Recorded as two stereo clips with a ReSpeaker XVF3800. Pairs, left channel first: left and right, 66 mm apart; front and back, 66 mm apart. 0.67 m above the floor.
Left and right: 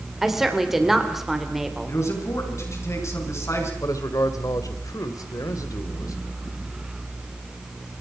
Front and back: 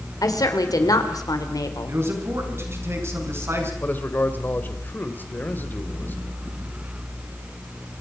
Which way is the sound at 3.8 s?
60° left.